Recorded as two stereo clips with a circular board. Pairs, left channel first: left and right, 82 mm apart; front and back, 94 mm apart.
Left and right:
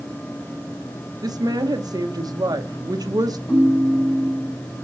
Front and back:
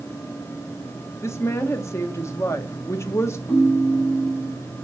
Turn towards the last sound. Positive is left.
turn(degrees=70)